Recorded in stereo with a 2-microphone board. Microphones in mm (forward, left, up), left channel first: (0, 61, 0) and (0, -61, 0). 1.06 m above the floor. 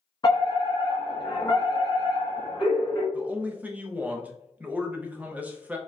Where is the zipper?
I don't hear a zipper.